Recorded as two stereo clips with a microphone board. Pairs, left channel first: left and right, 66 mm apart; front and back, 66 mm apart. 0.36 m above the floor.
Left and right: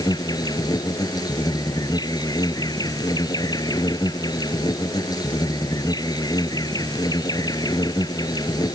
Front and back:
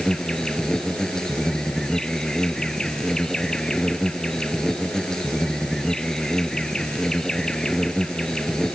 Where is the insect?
80° left.